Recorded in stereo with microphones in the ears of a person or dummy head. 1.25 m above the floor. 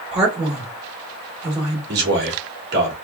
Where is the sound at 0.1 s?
35° right (ahead or behind), 2.5 m.